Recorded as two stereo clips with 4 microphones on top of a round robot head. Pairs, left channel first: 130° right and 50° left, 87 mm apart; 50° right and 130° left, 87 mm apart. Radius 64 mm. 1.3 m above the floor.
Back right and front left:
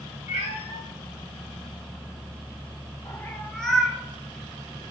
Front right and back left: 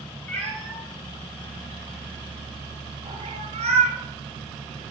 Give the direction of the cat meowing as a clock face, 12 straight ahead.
4 o'clock.